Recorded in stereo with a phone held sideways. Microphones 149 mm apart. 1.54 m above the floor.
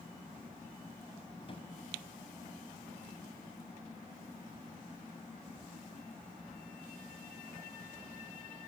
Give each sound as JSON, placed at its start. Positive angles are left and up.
{"t": 1.4, "sound": "a drawer", "side_deg": 40, "distance_m": 3.5}